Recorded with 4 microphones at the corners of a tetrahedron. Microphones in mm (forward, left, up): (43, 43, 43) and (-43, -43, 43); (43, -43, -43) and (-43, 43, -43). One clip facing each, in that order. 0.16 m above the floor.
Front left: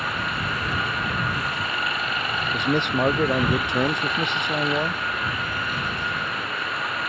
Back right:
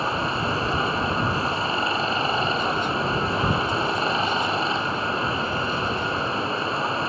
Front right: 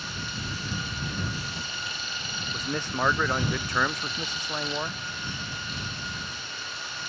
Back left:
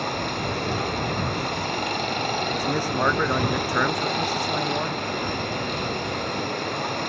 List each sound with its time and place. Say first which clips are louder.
0.0 s running water: back right 4 dB, back left 11 dB; 165° left
2.5 s a man speaking: front left 2 dB, back left 7 dB; 55° left